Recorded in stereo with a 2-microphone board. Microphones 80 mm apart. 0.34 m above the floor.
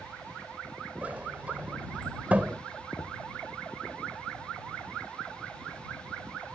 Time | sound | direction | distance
1.0 | a sliding door | 20° right (ahead or behind) | ?
3.0 | knocking | 55° left (ahead or behind) | ?